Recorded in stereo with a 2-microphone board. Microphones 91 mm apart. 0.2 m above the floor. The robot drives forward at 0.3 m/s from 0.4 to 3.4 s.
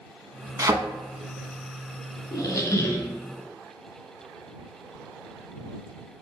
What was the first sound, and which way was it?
A thud, 35° right (ahead or behind).